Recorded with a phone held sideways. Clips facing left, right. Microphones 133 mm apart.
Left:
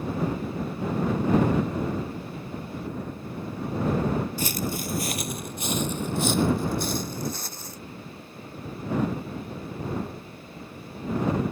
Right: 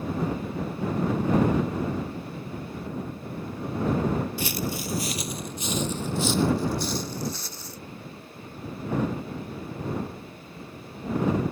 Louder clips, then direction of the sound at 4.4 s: Left 1 dB; 45° left (ahead or behind).